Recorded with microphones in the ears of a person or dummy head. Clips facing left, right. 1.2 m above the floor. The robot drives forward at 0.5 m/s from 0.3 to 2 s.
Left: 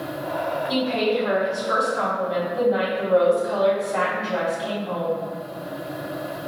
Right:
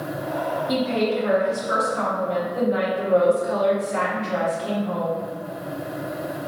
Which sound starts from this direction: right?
A woman speaking, at 0.7 s.